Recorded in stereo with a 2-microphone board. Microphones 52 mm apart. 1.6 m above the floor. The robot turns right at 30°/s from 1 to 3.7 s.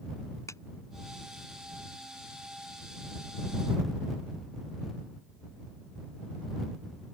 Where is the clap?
75° left (ahead or behind).